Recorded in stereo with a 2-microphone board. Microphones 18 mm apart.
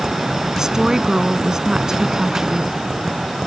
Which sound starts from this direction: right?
A woman speaking, at 0.6 s.